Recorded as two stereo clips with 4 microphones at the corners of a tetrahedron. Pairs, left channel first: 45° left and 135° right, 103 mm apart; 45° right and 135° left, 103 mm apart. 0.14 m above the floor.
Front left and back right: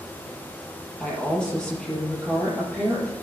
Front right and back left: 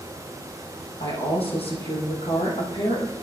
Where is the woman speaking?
35° right, 4 m.